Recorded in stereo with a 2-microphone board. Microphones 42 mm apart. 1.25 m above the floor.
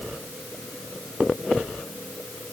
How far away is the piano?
No piano in this recording.